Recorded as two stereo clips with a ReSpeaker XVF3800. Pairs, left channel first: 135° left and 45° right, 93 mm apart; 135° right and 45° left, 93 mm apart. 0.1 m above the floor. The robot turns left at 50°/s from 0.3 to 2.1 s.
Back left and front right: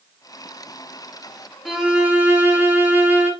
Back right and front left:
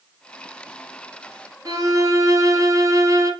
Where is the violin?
40° left, 2.5 m; by 3.3 s 20° left, 2.5 m.